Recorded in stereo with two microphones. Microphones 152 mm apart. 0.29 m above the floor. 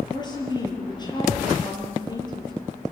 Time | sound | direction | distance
0.1 | a woman speaking | 25° left (ahead or behind) | 6.5 m